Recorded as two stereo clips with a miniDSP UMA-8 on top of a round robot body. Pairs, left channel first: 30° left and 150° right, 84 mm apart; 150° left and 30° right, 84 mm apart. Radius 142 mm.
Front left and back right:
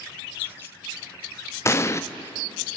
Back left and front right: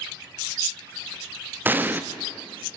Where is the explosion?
20° left, 1.2 m.